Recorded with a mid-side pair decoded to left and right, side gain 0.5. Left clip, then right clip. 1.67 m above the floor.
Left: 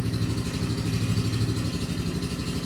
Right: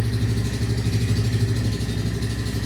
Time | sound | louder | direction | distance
0.0 | an engine running | right 2 dB | 50° right | 4 m